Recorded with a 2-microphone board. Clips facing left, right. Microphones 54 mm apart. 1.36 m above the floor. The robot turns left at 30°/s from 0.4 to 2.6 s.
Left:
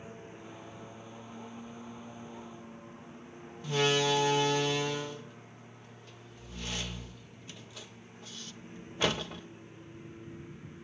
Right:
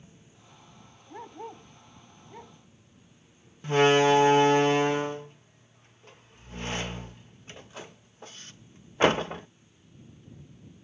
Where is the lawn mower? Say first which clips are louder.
Left 10 dB; 125° left; by 10.8 s 60° left.